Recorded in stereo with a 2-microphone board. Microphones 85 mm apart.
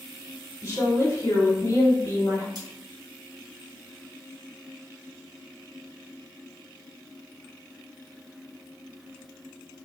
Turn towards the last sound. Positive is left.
turn(degrees=-50)  # may be behind; listen again after turning